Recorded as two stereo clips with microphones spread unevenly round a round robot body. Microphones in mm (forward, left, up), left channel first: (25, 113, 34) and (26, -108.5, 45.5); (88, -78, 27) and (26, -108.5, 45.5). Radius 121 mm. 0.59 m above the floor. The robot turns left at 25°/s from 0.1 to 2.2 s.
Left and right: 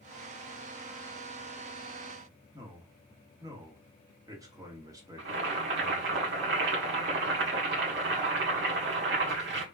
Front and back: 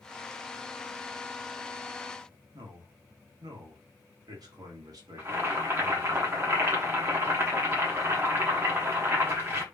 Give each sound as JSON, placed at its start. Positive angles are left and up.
{"t": 2.5, "sound": "a man speaking", "azimuth_deg": -160, "distance_m": 1.5}
{"t": 5.2, "sound": "boiling", "azimuth_deg": -95, "distance_m": 1.5}